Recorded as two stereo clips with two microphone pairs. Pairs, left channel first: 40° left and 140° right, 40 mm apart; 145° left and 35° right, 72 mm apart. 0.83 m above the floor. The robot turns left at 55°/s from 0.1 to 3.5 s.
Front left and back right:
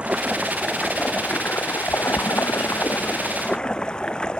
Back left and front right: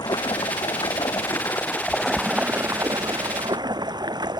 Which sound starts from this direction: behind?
Running water, at 0.0 s.